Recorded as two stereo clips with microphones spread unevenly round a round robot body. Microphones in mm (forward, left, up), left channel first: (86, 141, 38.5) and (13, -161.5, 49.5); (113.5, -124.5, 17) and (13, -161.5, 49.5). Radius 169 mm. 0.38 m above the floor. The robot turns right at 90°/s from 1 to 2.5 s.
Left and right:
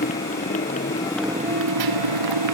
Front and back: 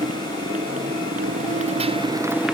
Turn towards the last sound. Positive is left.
turn(degrees=-75)